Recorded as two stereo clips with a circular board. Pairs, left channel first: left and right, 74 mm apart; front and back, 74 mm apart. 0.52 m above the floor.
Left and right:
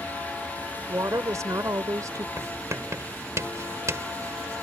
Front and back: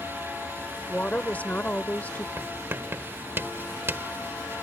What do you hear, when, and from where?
0.9 s a woman speaking: 65° right
2.4 s writing: 130° right